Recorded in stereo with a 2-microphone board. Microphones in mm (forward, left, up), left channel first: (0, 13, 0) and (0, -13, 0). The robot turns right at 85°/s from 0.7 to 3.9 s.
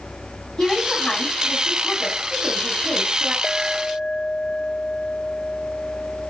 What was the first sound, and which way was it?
A woman speaking, 25° left.